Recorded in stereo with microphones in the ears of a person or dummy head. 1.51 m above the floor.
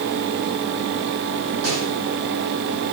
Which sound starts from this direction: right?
A snare drum, at 1.6 s.